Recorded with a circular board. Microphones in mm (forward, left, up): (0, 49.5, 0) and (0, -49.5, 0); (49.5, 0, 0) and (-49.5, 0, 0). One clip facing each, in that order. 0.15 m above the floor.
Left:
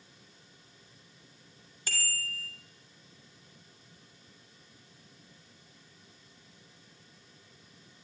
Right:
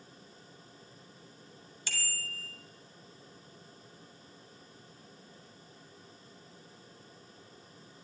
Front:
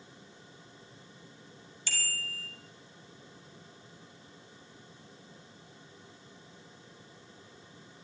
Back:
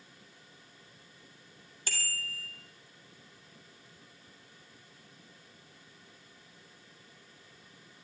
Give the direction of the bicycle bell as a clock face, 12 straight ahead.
7 o'clock.